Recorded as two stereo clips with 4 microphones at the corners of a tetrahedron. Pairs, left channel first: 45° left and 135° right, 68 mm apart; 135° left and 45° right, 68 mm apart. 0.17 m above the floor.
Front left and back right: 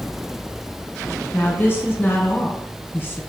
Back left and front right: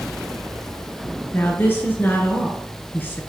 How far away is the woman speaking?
About 1.5 m.